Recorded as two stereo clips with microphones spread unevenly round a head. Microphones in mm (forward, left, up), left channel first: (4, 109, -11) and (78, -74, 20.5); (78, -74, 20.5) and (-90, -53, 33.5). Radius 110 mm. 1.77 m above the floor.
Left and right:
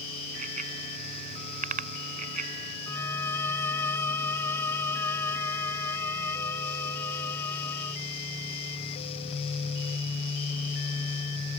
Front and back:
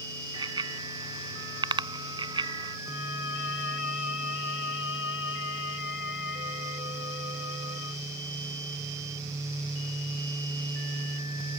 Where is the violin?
30° left.